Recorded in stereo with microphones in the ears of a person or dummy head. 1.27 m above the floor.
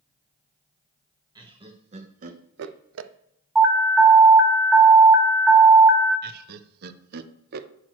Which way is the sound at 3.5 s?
10° right (ahead or behind).